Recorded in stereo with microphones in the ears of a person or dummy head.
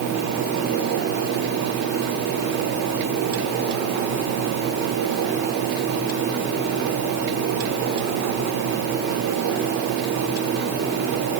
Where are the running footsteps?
No running footsteps in this recording.